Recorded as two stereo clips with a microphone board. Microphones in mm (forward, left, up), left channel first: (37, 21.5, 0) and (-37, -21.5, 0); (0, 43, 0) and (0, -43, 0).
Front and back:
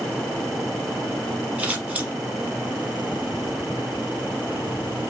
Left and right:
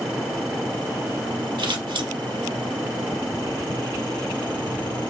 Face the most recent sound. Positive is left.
turn(degrees=-75)